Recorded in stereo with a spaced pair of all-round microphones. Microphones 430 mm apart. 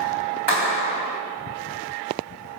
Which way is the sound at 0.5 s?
80° right.